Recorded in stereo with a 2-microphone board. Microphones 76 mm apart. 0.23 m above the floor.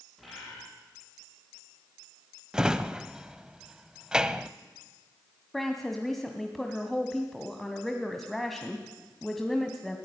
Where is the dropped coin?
No dropped coin in this recording.